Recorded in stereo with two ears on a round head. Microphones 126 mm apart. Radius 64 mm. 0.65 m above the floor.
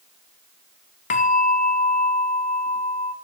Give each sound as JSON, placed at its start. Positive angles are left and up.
{"t": 1.1, "sound": "a bell", "side_deg": 55, "distance_m": 0.5}